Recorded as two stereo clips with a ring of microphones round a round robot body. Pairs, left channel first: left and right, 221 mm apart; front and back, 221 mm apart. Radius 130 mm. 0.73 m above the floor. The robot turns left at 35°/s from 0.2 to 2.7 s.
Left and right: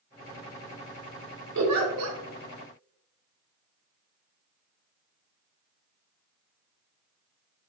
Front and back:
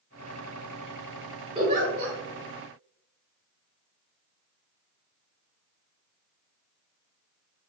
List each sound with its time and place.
1.6 s a giggle: 105° right, 0.7 m; by 2.2 s 130° right, 0.7 m